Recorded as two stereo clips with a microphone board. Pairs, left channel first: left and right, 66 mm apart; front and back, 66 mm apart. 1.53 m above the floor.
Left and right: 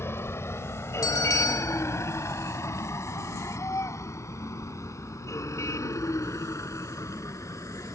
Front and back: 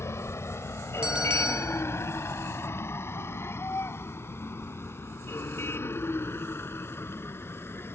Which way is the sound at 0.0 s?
40° left.